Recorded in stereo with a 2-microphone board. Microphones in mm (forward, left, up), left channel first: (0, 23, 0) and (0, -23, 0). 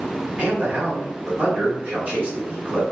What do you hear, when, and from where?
0.4 s a man speaking: 30° right (ahead or behind), 1.6 m